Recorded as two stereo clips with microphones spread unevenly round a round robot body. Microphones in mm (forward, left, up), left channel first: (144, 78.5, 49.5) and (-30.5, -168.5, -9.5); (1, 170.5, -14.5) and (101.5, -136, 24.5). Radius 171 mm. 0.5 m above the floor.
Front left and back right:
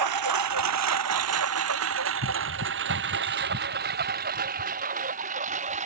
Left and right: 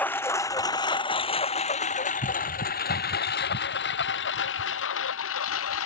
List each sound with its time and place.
0.0 s a lawn mower: 165° right; by 5.9 s 165° left